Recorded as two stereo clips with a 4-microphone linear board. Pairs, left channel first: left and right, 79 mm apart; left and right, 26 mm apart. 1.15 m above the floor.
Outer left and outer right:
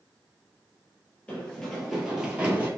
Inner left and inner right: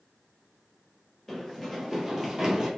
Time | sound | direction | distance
1.3 | running footsteps | 15° left (ahead or behind) | 1.5 m